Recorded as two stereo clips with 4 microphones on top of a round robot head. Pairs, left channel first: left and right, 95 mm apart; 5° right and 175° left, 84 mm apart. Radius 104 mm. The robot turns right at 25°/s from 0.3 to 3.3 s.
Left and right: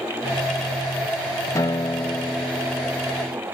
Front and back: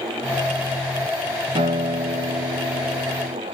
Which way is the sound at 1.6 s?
150° left.